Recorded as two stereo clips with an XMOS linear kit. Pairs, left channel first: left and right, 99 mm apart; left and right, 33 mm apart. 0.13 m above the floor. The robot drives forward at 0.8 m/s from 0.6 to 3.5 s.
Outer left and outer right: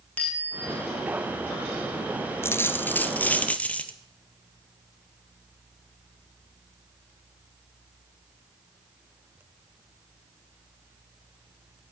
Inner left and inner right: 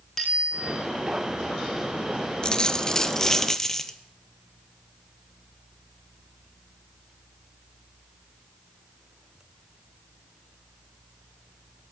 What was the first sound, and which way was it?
A bicycle bell, 15° left (ahead or behind).